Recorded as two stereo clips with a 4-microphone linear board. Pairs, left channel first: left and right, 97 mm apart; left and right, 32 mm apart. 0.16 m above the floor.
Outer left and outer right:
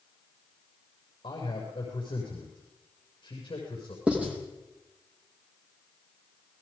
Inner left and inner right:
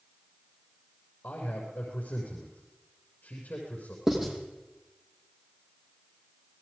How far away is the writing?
About 6 m.